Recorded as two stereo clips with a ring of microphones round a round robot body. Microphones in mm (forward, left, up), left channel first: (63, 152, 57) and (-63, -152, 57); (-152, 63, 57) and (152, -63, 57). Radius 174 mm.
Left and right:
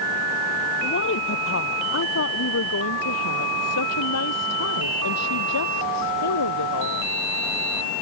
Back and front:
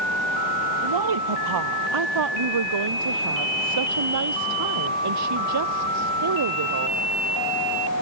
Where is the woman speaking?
10° left; by 7.1 s 25° left.